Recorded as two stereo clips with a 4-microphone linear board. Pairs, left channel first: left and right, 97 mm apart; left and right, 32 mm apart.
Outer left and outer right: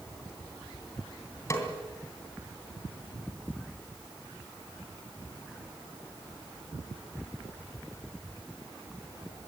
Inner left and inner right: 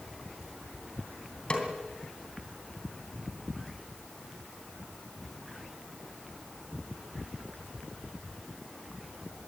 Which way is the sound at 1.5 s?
30° left (ahead or behind).